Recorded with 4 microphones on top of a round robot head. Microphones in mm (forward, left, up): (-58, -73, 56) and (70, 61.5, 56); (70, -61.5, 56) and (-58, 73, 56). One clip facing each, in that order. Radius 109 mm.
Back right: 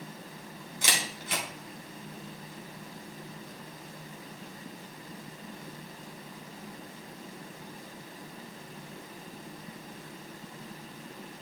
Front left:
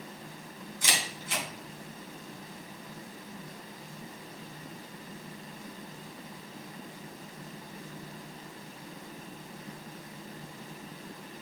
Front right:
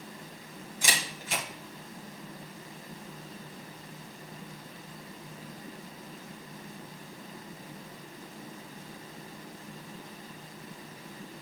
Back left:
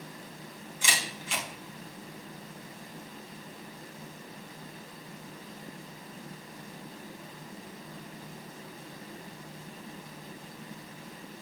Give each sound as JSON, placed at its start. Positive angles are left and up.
{"t": 0.8, "sound": "a camera shutter", "azimuth_deg": -100, "distance_m": 2.5}